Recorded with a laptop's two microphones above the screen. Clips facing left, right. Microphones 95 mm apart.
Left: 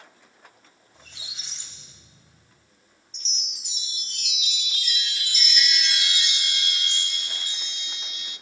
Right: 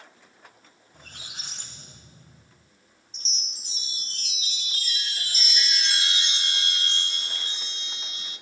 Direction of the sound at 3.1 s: 35° right (ahead or behind).